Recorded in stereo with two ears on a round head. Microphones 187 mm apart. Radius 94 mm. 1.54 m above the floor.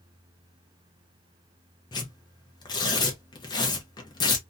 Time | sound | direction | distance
1.9 | tearing paper | 20° left (ahead or behind) | 0.7 m